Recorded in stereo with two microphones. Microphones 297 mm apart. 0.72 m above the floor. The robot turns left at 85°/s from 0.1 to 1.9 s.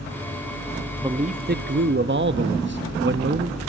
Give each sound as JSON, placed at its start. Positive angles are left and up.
{"t": 1.0, "sound": "a man speaking", "azimuth_deg": -20, "distance_m": 0.5}